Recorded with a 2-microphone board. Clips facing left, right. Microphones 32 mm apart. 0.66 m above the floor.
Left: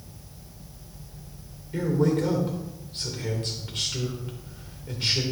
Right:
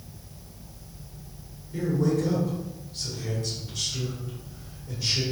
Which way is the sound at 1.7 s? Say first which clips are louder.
Left 2 dB; 55° left (ahead or behind).